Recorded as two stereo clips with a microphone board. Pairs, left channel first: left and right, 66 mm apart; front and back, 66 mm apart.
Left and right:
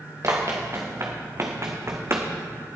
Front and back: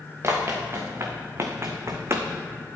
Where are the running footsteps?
130° right, 3 m; by 2.3 s 135° right, 1.7 m.